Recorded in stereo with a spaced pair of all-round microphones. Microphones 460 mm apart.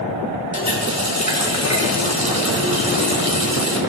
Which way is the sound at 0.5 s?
35° left (ahead or behind).